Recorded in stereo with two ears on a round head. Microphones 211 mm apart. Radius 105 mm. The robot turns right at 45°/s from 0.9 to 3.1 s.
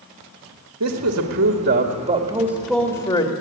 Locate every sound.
0.8 s a man speaking: 85° right, 2 m; by 3.3 s 15° left, 2 m